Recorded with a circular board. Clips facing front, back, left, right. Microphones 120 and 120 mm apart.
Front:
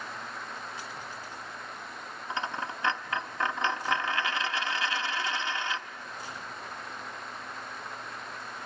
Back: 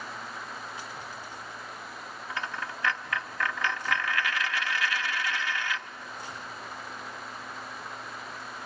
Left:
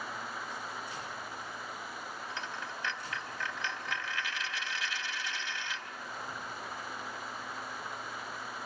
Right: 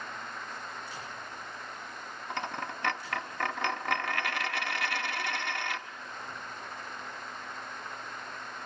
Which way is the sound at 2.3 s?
65° right.